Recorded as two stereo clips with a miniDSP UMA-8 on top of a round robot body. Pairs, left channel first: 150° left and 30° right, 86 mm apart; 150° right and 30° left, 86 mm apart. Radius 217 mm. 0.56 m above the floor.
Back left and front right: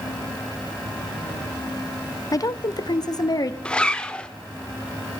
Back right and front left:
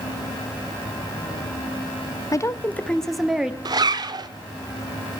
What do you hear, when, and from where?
2.3 s a woman speaking: straight behind, 1.0 m; by 3.5 s 110° left, 1.6 m
3.6 s a zipper: 70° left, 0.9 m